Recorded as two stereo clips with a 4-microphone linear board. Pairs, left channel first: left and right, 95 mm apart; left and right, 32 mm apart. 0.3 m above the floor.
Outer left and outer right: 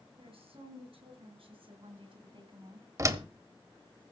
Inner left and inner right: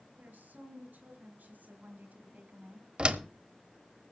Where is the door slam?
35° right (ahead or behind), 1.2 m.